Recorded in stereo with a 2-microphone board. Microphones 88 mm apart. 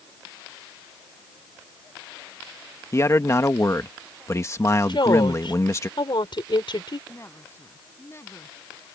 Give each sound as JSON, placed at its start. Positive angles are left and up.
{"t": 2.9, "sound": "a man speaking", "side_deg": 35}
{"t": 4.9, "sound": "a woman speaking", "side_deg": 65}
{"t": 7.1, "sound": "a woman speaking", "side_deg": 30}